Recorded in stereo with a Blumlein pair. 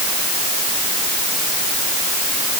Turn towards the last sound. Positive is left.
No sound to turn to.